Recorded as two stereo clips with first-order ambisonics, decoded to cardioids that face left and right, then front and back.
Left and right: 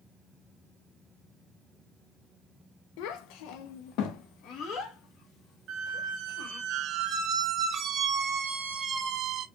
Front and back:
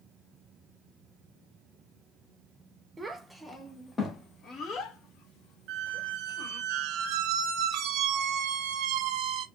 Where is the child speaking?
105° left, 1.0 m; by 6.6 s 30° left, 2 m.